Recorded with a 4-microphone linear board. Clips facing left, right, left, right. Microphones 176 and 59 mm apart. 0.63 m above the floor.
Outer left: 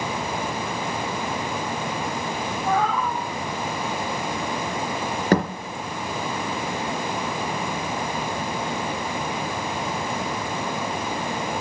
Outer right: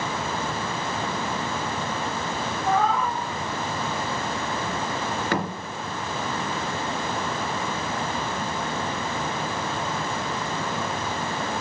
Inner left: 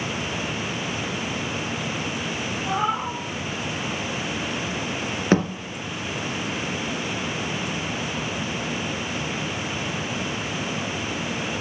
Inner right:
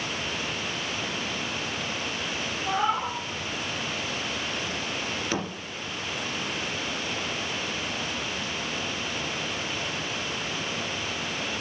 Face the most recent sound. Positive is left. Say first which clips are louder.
# outer left 8 dB, inner left 12 dB
turn(degrees=40)  # may be behind; listen again after turning